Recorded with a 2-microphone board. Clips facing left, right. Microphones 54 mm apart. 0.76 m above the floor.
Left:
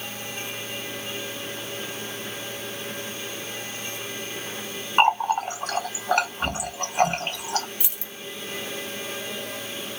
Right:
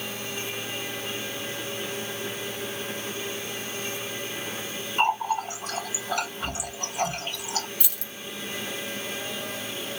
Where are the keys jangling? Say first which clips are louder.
Even; 25° left (ahead or behind), 0.6 m.